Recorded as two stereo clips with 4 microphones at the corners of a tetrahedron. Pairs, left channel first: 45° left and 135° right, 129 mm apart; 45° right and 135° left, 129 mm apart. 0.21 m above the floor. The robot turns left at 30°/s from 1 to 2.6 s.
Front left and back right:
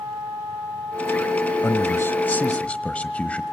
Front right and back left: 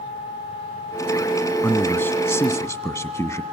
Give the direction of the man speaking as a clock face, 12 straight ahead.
12 o'clock.